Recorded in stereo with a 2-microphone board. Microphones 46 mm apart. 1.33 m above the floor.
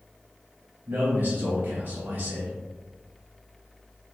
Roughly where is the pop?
No pop in this recording.